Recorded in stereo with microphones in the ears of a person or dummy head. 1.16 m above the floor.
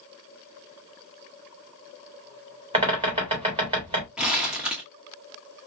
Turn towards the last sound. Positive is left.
turn(degrees=-5)  # may be behind; listen again after turning